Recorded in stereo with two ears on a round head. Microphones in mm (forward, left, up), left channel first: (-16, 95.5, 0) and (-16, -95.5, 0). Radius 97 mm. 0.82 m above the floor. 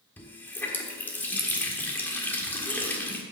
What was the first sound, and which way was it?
A running tap, 10° left (ahead or behind).